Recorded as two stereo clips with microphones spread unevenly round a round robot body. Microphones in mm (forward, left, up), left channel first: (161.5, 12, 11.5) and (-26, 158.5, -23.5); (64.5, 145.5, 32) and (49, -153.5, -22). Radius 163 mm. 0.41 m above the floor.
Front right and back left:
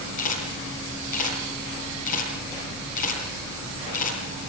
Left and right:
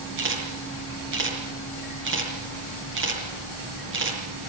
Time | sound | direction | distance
0.2 | a camera shutter | 45° right | 8.5 m